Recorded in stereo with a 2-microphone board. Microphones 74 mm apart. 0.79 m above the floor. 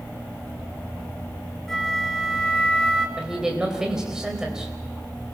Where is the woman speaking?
10° right (ahead or behind), 4 m.